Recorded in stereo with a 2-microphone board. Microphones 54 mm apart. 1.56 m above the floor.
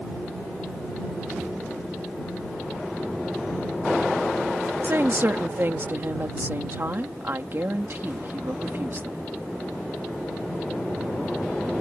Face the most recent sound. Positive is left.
turn(degrees=-50)  # may be behind; listen again after turning